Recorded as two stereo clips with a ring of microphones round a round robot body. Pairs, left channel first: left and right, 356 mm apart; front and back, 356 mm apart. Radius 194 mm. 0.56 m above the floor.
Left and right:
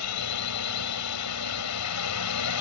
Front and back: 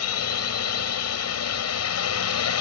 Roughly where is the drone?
Ahead left.